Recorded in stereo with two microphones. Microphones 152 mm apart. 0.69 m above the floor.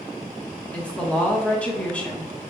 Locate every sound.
0.7 s a woman speaking: 10° left (ahead or behind), 0.9 m